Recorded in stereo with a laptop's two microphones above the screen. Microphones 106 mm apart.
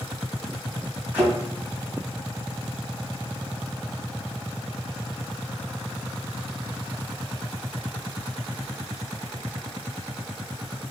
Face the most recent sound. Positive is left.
turn(degrees=-15)  # may be behind; listen again after turning